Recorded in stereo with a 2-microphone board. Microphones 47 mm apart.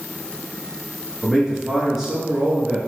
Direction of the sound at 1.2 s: 5° right (ahead or behind).